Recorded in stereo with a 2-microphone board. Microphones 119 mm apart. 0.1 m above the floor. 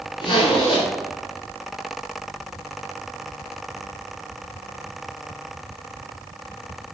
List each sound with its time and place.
0.2 s a zipper: 45° left (ahead or behind), 1.0 m